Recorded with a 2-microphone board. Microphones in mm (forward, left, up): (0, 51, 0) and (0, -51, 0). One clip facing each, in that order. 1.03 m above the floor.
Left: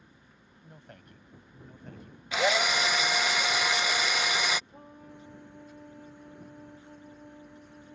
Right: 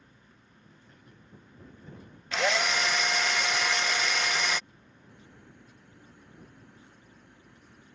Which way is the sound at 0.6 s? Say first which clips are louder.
Left 7 dB; 70° left (ahead or behind).